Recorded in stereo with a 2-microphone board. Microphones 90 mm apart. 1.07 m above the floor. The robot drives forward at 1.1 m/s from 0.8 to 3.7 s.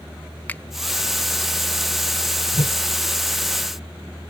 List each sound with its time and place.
0.5 s a finger snap: 20° left (ahead or behind)
2.5 s a whoosh: 70° left (ahead or behind); by 2.8 s 75° left (ahead or behind)